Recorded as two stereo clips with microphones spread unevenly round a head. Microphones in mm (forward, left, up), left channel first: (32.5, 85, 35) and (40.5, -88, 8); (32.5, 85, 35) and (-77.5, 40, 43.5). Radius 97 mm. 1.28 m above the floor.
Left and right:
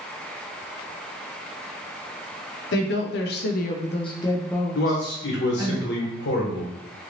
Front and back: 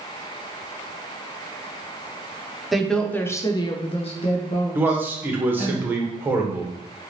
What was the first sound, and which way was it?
A woman speaking, 110° left.